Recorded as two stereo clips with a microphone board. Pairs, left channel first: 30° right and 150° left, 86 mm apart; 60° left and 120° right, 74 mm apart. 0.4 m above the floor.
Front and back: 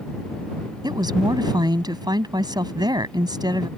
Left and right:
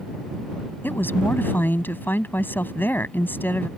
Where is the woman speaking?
120° left.